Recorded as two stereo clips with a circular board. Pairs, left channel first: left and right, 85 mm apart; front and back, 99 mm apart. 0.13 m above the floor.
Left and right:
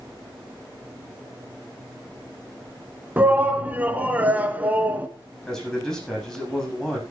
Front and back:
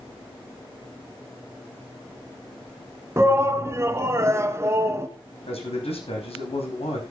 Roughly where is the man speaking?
Ahead.